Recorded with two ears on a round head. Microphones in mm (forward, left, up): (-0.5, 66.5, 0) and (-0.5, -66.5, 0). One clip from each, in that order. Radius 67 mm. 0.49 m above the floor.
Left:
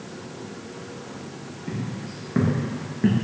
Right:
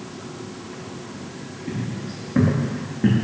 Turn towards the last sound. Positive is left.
turn(degrees=25)  # may be behind; listen again after turning